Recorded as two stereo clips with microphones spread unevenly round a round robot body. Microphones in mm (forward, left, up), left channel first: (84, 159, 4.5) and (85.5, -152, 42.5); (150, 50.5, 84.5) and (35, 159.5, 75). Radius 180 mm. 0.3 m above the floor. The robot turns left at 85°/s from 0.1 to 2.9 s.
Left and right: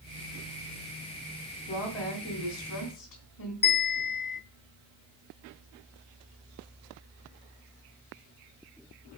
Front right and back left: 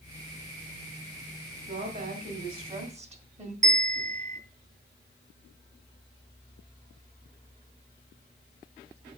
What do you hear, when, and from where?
1.7 s a woman speaking: 160° right, 1.9 m; by 3.5 s 95° left, 1.9 m
3.6 s a bell: 135° left, 0.8 m